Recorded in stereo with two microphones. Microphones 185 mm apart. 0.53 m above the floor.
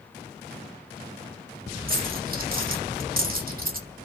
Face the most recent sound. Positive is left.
turn(degrees=-50)  # may be behind; listen again after turning